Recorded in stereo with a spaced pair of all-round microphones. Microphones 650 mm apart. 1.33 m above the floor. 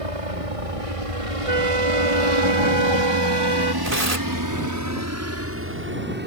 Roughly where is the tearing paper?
Right.